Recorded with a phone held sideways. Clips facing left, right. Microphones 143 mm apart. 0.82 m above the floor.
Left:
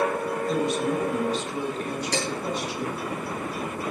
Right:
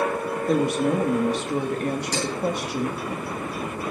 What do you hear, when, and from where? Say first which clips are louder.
0.5 s a woman speaking: right 5 dB; 55° right (ahead or behind), 1.6 m
2.1 s dishes clattering: right 1 dB; 70° left (ahead or behind), 8 m